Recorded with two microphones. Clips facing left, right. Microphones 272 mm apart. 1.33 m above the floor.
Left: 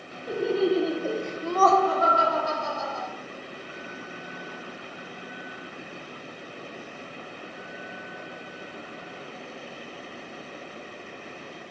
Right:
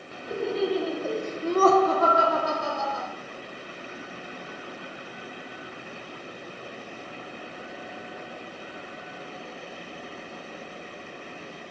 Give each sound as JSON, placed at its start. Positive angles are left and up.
{"t": 0.3, "sound": "laughter", "side_deg": 45, "distance_m": 0.8}